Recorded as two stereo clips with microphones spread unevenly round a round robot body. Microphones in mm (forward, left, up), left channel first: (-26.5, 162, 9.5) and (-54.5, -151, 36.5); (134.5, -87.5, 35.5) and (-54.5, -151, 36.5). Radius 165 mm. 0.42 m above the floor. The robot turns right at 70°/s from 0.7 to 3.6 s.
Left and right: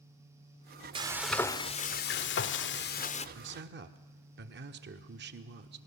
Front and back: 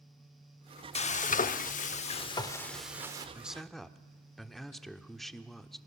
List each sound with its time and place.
0.9 s frying: 20° right, 0.7 m; by 3.2 s 140° left, 0.7 m
3.4 s a man speaking: 85° right, 1.0 m; by 5.8 s 70° right, 1.0 m